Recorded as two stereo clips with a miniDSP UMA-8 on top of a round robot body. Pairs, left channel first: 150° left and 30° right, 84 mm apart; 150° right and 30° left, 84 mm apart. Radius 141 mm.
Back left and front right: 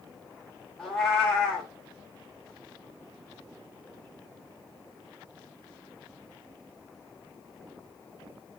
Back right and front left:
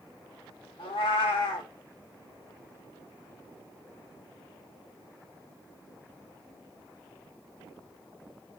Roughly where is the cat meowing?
Behind right.